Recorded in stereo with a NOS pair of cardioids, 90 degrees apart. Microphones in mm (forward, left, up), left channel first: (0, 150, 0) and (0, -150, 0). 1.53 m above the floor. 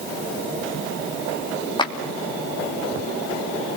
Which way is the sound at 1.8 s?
15° left.